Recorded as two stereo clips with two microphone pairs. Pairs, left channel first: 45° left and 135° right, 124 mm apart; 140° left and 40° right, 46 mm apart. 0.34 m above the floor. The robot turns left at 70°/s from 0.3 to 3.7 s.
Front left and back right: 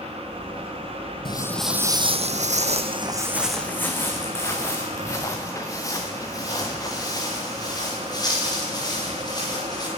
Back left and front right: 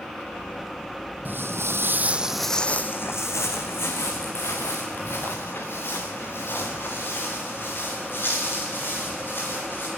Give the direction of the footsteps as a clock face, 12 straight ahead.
12 o'clock.